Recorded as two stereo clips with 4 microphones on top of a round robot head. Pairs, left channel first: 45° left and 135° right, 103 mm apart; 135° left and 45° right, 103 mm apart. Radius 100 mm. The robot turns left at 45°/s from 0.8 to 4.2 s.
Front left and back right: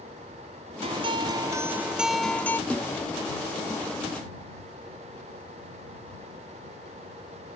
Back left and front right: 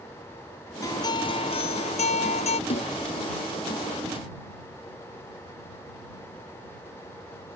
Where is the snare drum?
125° left; by 2.9 s 115° left.